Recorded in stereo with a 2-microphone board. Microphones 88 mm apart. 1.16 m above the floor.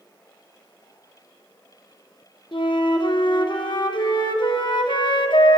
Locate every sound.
2.5 s a flute: 65° left (ahead or behind), 0.6 m